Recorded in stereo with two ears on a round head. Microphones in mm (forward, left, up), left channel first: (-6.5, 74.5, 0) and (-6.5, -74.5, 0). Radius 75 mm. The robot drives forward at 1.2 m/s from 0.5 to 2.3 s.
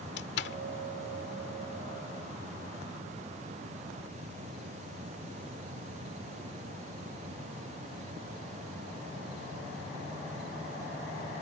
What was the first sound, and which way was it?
A door slam, 70° left (ahead or behind).